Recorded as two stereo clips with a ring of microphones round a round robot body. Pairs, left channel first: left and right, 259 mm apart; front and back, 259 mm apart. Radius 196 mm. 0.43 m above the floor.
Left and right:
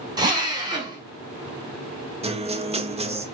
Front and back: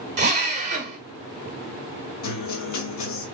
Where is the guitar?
20° right, 0.8 m.